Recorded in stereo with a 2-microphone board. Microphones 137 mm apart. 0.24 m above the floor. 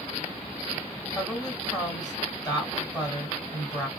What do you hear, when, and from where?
1.1 s a woman speaking: 30° left (ahead or behind), 1.4 m